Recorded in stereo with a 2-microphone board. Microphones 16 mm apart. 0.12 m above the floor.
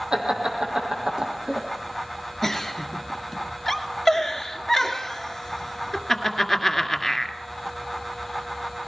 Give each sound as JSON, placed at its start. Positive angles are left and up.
{"t": 0.1, "sound": "laughter", "side_deg": -60, "distance_m": 4.5}
{"t": 2.4, "sound": "a giggle", "side_deg": 10, "distance_m": 1.8}